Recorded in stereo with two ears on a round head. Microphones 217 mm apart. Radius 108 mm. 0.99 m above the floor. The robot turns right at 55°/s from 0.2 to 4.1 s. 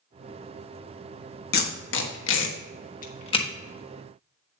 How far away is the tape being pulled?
About 1.3 m.